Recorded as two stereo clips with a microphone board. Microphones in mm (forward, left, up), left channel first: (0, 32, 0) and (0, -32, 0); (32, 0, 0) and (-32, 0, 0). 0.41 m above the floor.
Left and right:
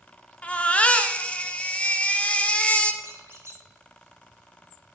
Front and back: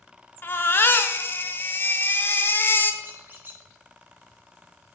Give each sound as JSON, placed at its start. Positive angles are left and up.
{"t": 0.4, "sound": "a baby crying", "azimuth_deg": 30, "distance_m": 0.5}
{"t": 3.0, "sound": "a squeak", "azimuth_deg": -125, "distance_m": 0.9}